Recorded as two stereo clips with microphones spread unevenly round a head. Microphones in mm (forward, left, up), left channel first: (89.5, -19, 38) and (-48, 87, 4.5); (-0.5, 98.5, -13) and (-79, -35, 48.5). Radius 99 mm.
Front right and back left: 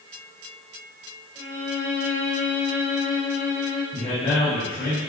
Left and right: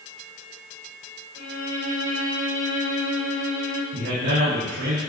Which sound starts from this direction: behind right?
A violin, at 1.4 s.